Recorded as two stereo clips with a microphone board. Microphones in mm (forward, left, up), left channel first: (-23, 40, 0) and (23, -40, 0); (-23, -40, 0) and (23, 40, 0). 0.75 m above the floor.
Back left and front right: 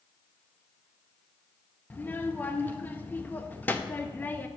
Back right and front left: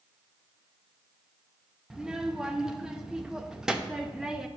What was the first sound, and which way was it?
A child speaking, 130° left.